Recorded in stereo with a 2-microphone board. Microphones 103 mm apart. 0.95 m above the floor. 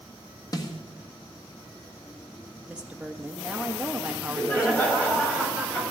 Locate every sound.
0.5 s a snare drum: 35° left (ahead or behind), 1.6 m
2.7 s a woman speaking: 10° right (ahead or behind), 1.4 m
4.1 s laughter: 15° left (ahead or behind), 5.5 m